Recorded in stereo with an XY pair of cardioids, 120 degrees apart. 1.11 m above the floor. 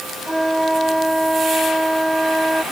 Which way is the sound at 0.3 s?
5° right.